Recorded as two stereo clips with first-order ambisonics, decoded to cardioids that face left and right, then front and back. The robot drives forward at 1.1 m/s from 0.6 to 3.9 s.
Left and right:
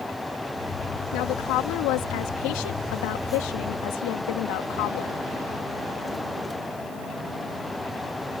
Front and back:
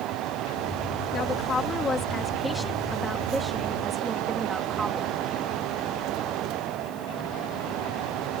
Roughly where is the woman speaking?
Ahead left.